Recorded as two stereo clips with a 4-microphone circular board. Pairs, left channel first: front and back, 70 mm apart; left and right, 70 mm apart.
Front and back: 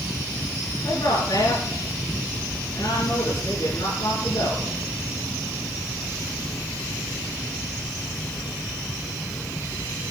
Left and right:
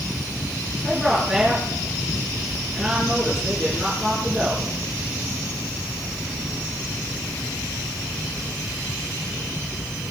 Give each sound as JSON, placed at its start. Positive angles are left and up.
{"t": 0.8, "sound": "a woman speaking", "azimuth_deg": -5, "distance_m": 6.0}